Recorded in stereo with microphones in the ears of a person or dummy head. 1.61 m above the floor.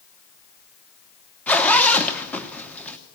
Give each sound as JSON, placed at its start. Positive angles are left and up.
{"t": 1.5, "sound": "a zipper", "side_deg": 5, "distance_m": 1.1}